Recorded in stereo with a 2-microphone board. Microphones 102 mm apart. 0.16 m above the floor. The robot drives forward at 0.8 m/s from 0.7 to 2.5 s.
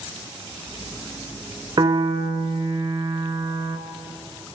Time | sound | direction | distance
1.8 | a piano | 45° right (ahead or behind) | 1.0 m